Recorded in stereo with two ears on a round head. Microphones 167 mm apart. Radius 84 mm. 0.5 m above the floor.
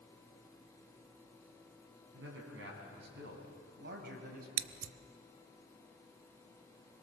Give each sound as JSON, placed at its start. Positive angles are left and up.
{"t": 2.1, "sound": "a man speaking", "side_deg": -70, "distance_m": 6.0}
{"t": 4.6, "sound": "scissors", "side_deg": -80, "distance_m": 0.6}